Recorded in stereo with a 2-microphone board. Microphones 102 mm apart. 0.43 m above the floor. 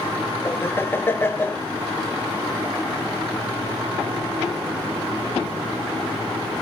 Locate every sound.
0.5 s laughter: 20° left (ahead or behind), 0.8 m